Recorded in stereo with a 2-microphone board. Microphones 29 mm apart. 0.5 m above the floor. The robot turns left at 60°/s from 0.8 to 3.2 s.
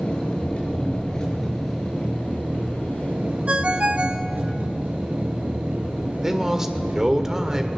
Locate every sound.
0.0 s an engine running: 40° left, 5.5 m; by 7.8 s 105° right, 5.5 m
3.5 s a ringtone: 45° right (ahead or behind), 0.9 m
6.2 s a man speaking: 15° right (ahead or behind), 1.6 m